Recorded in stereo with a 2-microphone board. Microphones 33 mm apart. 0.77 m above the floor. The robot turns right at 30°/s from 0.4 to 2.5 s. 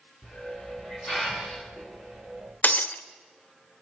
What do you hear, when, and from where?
0.2 s a hiss: centre (ahead or behind), 8 m; by 2.5 s 60° right (ahead or behind), 8 m
2.6 s breaking glass: 55° left (ahead or behind), 1.2 m